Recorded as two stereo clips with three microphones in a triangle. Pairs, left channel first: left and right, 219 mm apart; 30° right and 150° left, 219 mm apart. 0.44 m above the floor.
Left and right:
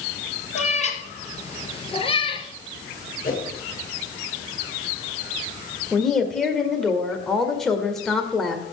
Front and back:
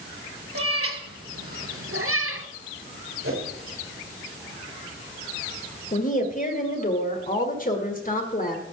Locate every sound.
0.6 s a cat meowing: 145° left, 2.5 m; by 2.5 s 155° left, 1.3 m
3.2 s a whoosh: 135° left, 7.5 m
5.9 s a woman speaking: straight ahead, 1.9 m